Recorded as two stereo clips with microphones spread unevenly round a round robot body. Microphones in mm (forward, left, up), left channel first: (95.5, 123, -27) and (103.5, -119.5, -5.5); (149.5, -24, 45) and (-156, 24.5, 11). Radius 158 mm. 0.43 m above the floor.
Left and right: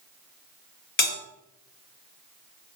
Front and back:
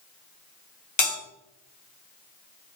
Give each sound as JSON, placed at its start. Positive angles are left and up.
{"t": 1.0, "sound": "a bell", "azimuth_deg": 60, "distance_m": 1.9}